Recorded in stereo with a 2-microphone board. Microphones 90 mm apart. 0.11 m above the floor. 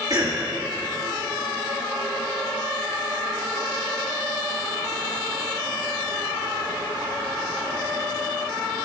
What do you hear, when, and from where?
0.1 s a cough: 45° right (ahead or behind), 1.6 m